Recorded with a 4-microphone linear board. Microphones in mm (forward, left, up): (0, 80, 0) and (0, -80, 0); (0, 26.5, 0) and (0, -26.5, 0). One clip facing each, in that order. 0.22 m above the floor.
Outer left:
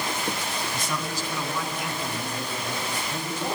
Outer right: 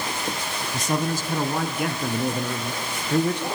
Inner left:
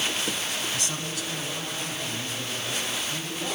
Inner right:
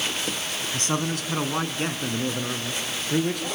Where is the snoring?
I don't hear snoring.